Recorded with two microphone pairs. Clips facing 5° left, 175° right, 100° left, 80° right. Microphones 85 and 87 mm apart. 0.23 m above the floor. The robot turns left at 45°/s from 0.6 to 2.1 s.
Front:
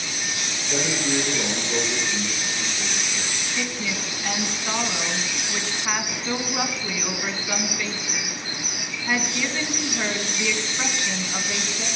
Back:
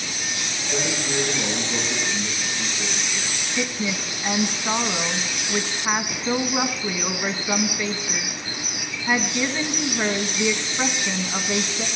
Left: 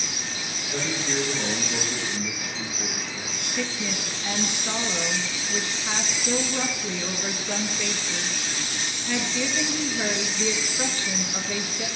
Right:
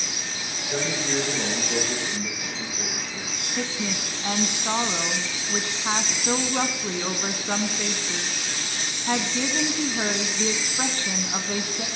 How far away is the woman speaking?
About 1.7 m.